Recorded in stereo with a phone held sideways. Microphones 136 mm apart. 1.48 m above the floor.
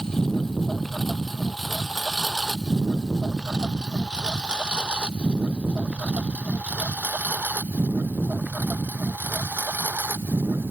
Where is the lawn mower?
5° left (ahead or behind); by 10.7 s 15° right (ahead or behind).